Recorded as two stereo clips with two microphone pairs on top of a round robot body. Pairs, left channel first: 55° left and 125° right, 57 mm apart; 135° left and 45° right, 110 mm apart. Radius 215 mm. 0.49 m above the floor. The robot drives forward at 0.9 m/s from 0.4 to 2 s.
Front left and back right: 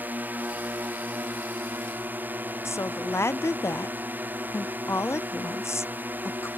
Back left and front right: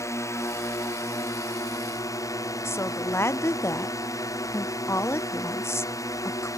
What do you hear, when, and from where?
0.0 s a drone: 175° right
2.6 s a woman speaking: 70° left